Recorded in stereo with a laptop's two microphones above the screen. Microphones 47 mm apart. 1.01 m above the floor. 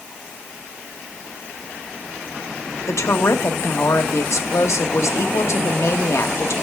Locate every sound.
2.9 s a woman speaking: 75° left (ahead or behind), 1.1 m